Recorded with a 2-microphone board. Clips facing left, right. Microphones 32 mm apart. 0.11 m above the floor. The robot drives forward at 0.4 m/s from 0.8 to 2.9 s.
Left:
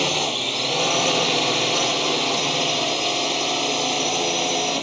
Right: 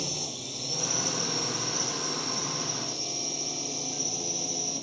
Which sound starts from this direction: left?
A drone, at 0.0 s.